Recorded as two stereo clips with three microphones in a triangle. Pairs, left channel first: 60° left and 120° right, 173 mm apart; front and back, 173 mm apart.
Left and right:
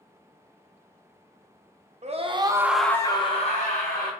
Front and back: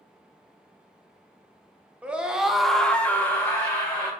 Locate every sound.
2.0 s a scream: 100° right, 0.7 m; by 4.1 s 75° left, 0.9 m